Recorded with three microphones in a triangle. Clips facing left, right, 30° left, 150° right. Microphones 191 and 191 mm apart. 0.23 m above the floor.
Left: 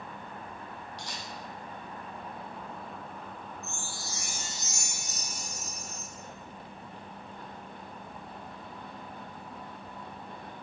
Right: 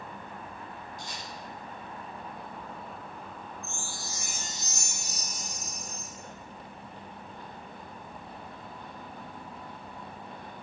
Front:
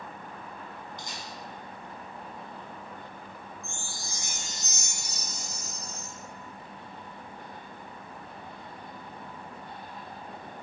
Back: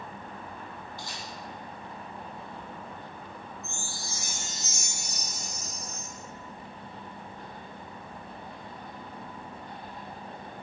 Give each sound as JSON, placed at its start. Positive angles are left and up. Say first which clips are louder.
{"t": 1.0, "sound": "a camera shutter", "louder": "even, back 1 dB", "azimuth_deg": 100, "distance_m": 3.0}
{"t": 3.6, "sound": "a chime", "louder": "even, back 1 dB", "azimuth_deg": 90, "distance_m": 3.5}